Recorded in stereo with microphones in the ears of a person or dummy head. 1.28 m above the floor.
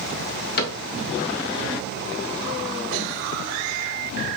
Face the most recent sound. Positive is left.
turn(degrees=40)  # may be behind; listen again after turning